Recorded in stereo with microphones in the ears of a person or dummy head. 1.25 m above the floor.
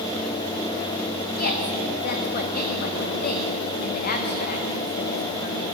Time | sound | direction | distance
1.4 | a woman speaking | 45° left (ahead or behind) | 1.5 m